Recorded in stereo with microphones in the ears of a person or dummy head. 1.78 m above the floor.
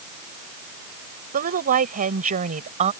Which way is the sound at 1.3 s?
45° right (ahead or behind).